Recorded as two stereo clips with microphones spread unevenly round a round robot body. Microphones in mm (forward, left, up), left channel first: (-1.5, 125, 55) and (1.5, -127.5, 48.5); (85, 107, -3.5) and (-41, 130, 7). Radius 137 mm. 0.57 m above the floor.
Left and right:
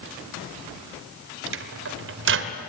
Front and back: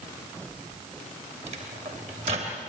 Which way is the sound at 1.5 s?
125° right.